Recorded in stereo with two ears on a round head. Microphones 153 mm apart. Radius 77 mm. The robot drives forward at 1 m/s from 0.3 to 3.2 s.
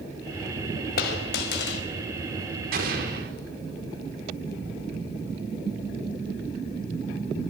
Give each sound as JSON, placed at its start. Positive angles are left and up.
{"t": 1.0, "sound": "a dropped coin", "side_deg": 55, "distance_m": 4.5}
{"t": 2.7, "sound": "an explosion", "side_deg": -50, "distance_m": 5.0}